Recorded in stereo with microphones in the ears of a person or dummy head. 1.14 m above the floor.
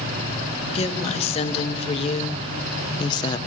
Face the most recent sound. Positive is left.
turn(degrees=15)  # may be behind; listen again after turning